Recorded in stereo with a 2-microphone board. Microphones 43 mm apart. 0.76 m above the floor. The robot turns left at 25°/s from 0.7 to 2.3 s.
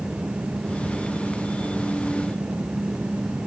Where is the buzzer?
No buzzer in this recording.